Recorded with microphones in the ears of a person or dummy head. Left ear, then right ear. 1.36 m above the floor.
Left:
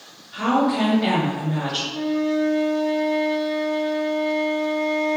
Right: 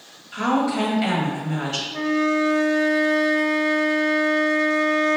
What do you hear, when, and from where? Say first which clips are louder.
0.3 s a woman speaking: left 1 dB; 70° right (ahead or behind), 1.4 m
1.9 s a flute: right 5 dB; 60° right (ahead or behind), 0.7 m